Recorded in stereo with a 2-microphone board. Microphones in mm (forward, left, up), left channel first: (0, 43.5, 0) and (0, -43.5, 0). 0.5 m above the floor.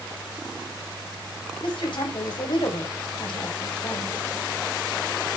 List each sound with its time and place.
1.6 s a woman speaking: 70° left (ahead or behind), 3 m